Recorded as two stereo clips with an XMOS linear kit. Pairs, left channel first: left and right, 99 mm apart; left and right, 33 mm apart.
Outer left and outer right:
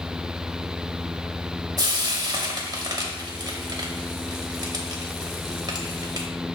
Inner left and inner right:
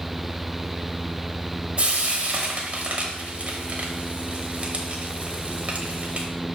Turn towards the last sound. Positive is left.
turn(degrees=-40)  # may be behind; listen again after turning